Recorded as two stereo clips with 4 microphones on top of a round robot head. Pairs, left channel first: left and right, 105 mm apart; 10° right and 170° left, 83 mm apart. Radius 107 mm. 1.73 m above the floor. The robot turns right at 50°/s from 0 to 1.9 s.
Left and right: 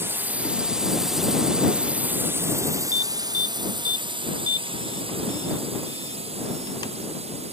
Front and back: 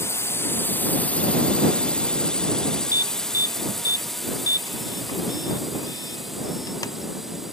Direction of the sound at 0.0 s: 40° right.